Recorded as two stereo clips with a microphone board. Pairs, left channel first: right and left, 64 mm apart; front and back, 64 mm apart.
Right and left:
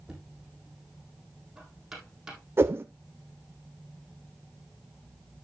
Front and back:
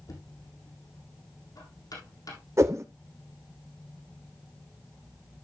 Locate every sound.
0.1 s knocking: 10° left, 4 m
2.6 s a whoosh: 145° left, 1.0 m